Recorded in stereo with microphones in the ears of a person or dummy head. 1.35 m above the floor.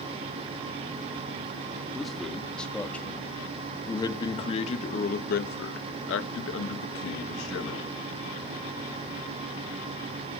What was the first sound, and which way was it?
A man speaking, centre (ahead or behind).